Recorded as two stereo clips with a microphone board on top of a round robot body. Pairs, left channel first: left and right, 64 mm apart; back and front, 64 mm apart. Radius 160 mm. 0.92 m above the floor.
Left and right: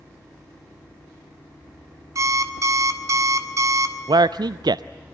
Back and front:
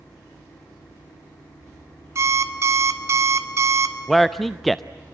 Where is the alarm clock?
45° right, 1.7 m.